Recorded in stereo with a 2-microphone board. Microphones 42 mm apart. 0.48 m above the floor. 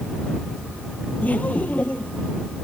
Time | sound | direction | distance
1.2 | laughter | 35° left (ahead or behind) | ?